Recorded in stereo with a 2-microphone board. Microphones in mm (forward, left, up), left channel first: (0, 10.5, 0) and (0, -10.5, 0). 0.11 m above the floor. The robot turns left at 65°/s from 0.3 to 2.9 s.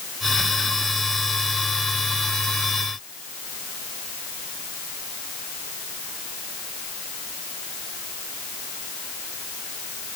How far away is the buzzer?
I don't hear a buzzer.